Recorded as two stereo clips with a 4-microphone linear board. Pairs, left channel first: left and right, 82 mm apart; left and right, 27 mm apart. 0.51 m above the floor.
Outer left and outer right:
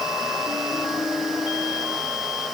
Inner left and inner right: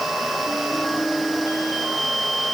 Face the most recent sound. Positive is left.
No sound to turn to.